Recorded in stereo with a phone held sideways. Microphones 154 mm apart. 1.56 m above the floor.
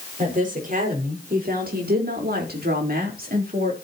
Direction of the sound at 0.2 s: 55° right (ahead or behind).